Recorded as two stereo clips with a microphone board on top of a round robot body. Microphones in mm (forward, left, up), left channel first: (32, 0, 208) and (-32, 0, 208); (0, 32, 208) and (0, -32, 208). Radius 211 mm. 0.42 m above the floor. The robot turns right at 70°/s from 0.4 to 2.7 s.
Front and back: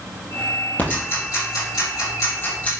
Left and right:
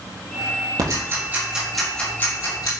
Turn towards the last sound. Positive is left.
turn(degrees=65)